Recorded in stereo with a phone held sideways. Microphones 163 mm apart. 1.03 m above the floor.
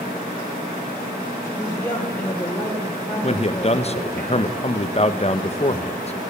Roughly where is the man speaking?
Left.